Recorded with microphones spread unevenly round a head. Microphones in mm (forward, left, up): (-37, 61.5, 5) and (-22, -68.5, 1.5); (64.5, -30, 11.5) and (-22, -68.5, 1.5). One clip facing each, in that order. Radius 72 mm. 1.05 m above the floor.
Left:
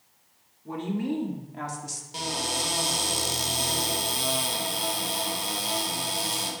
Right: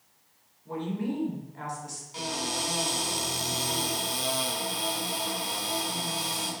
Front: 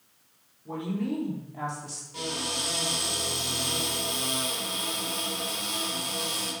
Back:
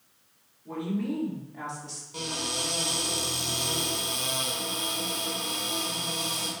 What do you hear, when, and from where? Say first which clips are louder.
0.7 s a woman speaking: left 2 dB, even; 100° left, 2.5 m; by 2.0 s 90° left, 1.8 m
2.1 s a cupboard door: left 1 dB, front 1 dB; 135° left, 3 m